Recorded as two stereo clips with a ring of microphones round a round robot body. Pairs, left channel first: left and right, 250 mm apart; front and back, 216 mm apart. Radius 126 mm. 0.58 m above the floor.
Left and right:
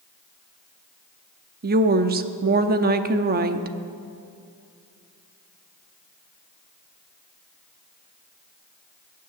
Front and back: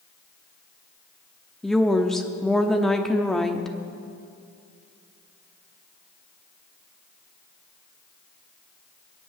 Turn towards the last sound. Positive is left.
turn(degrees=-85)